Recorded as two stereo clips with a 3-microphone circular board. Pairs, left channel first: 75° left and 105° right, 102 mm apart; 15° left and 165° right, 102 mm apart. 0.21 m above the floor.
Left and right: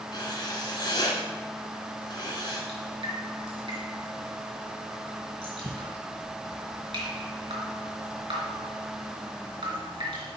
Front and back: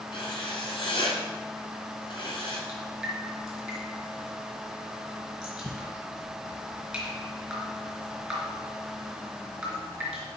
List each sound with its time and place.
0.1 s writing: 40° left, 1.7 m
2.7 s dripping: 80° right, 3 m